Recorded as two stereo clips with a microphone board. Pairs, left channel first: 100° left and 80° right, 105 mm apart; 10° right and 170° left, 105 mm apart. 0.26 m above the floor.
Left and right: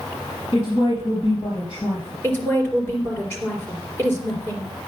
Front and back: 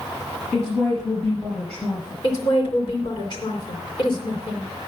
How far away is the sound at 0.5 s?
About 5.5 m.